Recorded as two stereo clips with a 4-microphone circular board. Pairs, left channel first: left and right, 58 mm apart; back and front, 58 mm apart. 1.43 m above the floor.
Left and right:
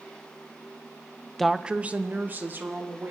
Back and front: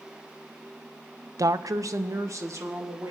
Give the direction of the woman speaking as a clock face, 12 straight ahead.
12 o'clock.